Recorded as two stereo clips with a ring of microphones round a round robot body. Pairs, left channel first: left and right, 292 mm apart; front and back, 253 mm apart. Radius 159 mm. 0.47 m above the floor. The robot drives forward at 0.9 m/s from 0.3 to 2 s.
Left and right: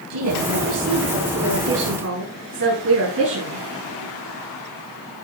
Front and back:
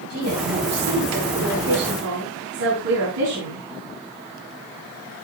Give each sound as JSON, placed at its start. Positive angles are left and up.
{"t": 0.1, "sound": "a woman speaking", "azimuth_deg": -125, "distance_m": 5.5}